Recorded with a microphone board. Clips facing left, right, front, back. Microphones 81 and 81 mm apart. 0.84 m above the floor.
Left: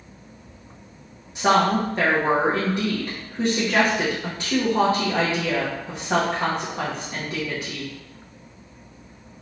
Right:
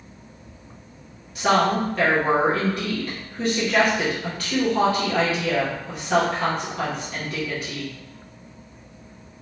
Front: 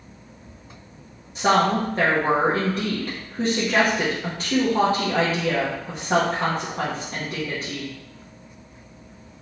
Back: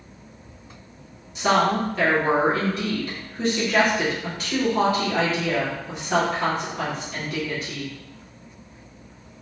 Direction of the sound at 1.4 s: 30° left.